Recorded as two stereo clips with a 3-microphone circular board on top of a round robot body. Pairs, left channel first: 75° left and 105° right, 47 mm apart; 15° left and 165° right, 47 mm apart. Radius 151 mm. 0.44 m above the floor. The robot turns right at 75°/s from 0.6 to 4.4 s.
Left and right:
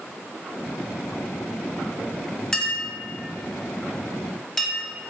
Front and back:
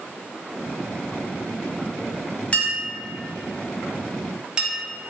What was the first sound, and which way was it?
A clink, 15° left.